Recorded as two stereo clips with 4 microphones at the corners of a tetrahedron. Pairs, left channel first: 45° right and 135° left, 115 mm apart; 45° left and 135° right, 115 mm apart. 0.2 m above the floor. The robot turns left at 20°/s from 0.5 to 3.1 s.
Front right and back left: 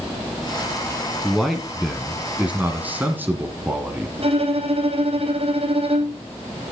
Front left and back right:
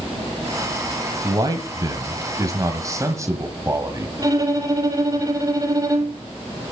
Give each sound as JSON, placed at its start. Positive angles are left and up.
{"t": 1.2, "sound": "a man speaking", "azimuth_deg": -130, "distance_m": 1.7}
{"t": 4.2, "sound": "a violin", "azimuth_deg": 165, "distance_m": 2.5}